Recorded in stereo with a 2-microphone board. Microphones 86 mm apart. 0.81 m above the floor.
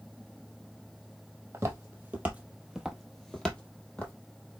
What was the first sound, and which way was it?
Footsteps, 25° right (ahead or behind).